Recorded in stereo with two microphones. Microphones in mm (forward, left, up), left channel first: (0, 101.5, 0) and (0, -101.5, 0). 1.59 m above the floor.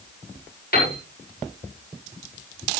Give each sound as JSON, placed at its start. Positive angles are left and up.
{"t": 0.7, "sound": "a piano", "side_deg": 50, "distance_m": 8.0}